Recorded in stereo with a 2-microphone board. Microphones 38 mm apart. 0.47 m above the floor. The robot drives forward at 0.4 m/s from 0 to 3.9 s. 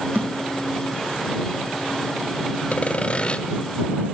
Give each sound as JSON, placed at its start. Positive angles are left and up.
{"t": 0.1, "sound": "a thud", "side_deg": -50, "distance_m": 4.5}
{"t": 2.7, "sound": "sawing", "side_deg": 35, "distance_m": 0.6}